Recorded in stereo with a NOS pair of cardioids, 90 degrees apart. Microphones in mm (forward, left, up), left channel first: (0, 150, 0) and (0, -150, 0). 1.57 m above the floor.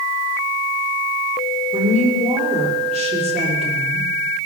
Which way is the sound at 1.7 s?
25° right.